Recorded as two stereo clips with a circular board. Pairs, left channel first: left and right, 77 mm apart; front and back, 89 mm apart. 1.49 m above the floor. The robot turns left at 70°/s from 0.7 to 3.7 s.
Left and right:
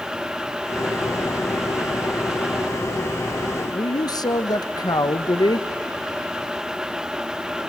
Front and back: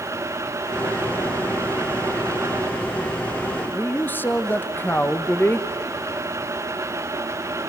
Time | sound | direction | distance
3.6 | a man speaking | 75° left | 1.2 m